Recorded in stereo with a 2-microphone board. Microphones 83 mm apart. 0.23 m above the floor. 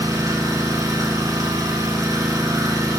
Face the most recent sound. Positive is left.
turn(degrees=-50)  # may be behind; listen again after turning